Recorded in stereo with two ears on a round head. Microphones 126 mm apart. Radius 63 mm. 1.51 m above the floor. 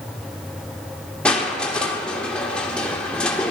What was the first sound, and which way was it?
Crushing, 5° left (ahead or behind).